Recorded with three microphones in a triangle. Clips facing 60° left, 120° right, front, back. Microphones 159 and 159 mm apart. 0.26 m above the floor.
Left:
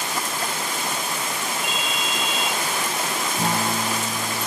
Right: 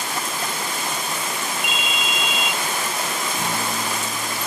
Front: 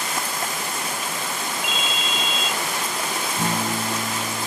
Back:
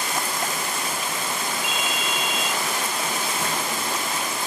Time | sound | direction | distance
1.6 | a ringtone | 55° right | 0.5 m
3.4 | a guitar | 10° left | 2 m